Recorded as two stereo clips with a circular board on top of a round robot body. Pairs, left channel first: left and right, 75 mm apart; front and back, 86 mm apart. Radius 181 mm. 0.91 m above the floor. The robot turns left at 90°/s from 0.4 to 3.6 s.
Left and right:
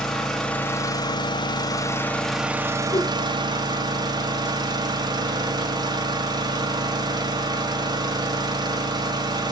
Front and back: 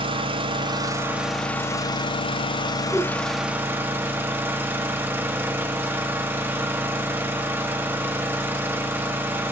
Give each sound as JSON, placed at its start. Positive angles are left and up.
{"t": 0.0, "sound": "an engine running", "azimuth_deg": 170, "distance_m": 1.4}
{"t": 2.9, "sound": "a whoosh", "azimuth_deg": 70, "distance_m": 3.5}